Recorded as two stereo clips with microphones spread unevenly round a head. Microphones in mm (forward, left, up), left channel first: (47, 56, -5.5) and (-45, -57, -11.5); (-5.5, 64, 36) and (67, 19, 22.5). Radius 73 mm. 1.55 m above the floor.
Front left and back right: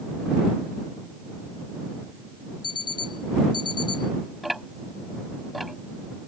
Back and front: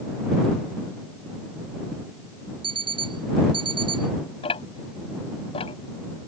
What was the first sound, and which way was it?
An alarm clock, 10° right.